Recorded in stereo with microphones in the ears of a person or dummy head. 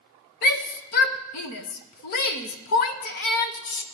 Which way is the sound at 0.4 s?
55° left (ahead or behind).